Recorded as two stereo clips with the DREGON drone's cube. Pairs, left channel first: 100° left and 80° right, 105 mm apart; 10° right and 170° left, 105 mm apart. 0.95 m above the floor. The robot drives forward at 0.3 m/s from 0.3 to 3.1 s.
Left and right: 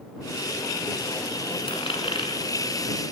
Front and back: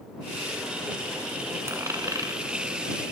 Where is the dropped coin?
115° left, 1.5 m; by 2.4 s 120° left, 1.6 m.